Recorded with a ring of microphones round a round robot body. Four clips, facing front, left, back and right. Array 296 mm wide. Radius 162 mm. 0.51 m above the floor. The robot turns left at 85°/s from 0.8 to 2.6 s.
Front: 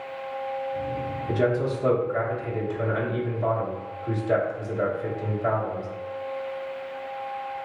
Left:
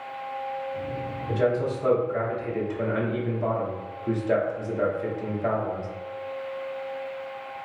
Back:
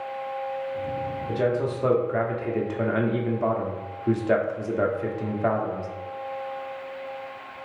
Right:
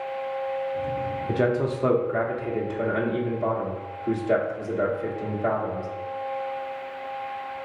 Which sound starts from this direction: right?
A man speaking, at 1.3 s.